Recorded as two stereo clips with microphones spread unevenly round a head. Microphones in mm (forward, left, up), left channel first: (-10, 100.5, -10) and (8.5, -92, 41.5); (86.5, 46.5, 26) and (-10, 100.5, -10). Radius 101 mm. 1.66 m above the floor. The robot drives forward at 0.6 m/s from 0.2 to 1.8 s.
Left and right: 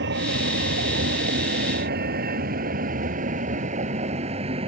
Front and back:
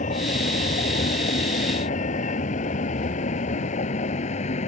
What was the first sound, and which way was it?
A vehicle, 50° right.